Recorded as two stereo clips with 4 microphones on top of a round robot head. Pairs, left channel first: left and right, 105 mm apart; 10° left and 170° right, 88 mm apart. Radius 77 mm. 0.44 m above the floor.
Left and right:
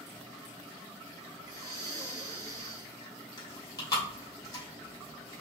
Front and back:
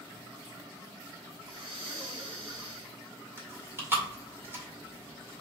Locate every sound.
1.4 s breathing: 145° right, 0.9 m
3.4 s chewing: 135° left, 1.9 m